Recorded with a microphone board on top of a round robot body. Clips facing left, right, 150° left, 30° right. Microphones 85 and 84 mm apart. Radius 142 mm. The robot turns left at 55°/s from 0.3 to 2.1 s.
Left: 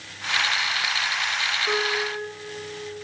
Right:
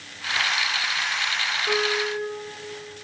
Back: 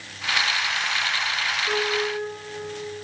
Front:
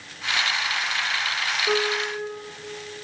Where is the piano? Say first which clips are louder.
Right 3 dB, front 1 dB; 5° right, 1.2 m; by 2.3 s 30° right, 1.2 m.